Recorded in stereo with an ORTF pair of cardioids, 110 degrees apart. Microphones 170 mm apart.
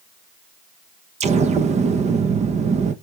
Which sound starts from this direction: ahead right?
An explosion, at 1.2 s.